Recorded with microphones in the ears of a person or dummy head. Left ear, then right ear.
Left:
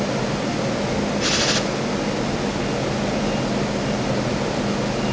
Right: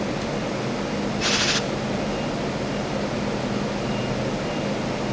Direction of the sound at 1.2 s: 10° right (ahead or behind).